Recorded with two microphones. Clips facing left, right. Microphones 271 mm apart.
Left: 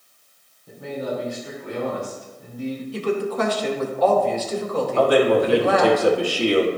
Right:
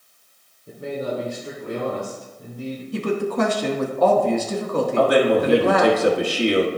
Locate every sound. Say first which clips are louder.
0.7 s a man speaking: right 1 dB; 30° right (ahead or behind), 2.5 m
2.9 s a woman speaking: right 2 dB; 55° right (ahead or behind), 1.4 m
5.0 s a man speaking: left 1 dB; 20° right (ahead or behind), 1.5 m